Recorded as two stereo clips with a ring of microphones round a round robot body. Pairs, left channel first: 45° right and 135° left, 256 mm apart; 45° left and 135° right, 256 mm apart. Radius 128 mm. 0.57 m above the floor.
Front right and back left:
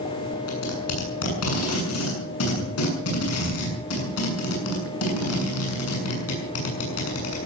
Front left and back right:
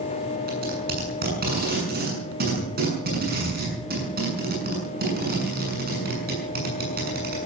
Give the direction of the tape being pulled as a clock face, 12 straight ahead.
3 o'clock.